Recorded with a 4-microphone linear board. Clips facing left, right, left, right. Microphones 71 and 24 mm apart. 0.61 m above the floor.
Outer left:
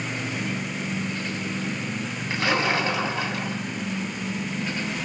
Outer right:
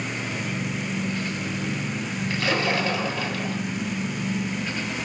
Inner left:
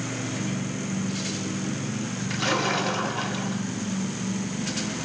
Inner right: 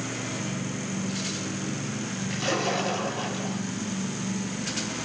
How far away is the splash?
About 3.5 m.